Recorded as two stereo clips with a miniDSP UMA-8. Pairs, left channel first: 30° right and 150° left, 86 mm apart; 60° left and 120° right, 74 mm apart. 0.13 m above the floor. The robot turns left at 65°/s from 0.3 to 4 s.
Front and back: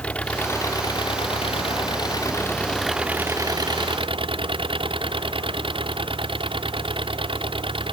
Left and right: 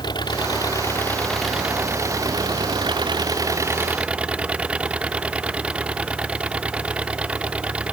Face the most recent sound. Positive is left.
turn(degrees=165)